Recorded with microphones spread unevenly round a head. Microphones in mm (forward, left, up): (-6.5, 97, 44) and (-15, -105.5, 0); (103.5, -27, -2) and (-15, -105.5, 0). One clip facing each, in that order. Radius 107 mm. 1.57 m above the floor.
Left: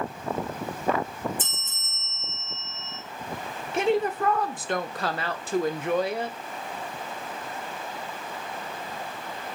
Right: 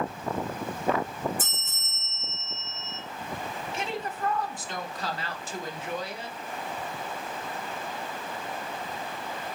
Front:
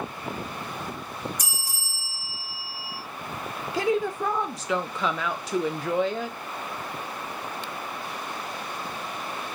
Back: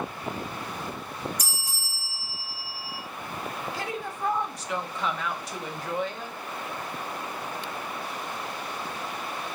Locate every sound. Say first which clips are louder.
1.4 s a bell: even, even; 5° right, 2 m
3.7 s a woman speaking: left 13 dB, front 9 dB; 55° left, 0.5 m